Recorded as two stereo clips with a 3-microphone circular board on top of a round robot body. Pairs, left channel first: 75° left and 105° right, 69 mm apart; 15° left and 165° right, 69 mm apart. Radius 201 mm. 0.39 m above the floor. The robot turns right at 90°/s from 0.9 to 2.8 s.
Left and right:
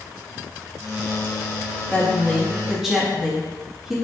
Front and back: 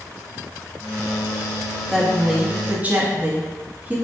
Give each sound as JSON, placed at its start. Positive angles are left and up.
{"t": 1.9, "sound": "a woman speaking", "azimuth_deg": 95, "distance_m": 0.8}